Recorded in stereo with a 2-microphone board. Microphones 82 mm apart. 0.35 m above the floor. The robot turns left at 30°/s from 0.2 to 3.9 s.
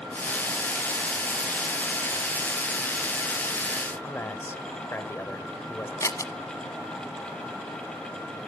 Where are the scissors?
40° left (ahead or behind), 1.1 m.